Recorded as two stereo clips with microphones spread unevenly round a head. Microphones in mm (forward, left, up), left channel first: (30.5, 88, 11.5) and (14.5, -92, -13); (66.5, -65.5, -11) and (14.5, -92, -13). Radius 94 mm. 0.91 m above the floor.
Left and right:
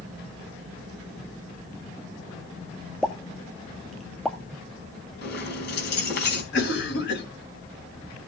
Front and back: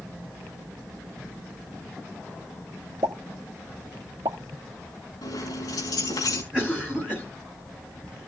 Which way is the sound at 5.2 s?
55° left.